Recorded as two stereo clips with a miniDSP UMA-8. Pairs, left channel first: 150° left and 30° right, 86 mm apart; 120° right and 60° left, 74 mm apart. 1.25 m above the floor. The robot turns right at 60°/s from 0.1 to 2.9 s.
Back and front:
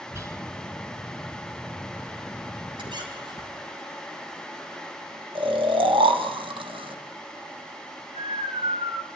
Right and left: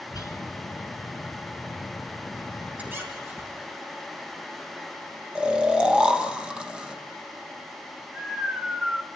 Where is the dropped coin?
I don't hear a dropped coin.